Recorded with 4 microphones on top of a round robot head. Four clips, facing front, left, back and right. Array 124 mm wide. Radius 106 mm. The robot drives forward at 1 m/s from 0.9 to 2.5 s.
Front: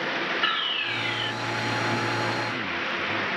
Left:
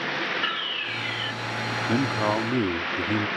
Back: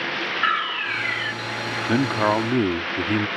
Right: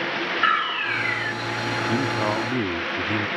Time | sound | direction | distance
0.4 | a fire alarm | 125° right | ?
1.9 | a man speaking | 165° left | ?